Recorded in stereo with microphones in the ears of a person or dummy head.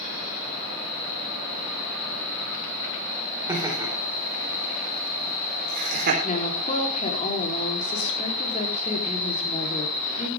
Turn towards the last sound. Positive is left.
turn(degrees=35)  # may be behind; listen again after turning